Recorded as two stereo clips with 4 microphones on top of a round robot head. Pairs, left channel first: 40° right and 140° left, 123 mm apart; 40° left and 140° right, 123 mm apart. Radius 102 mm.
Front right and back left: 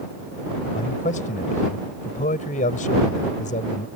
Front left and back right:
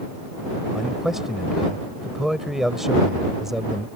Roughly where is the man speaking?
Ahead right.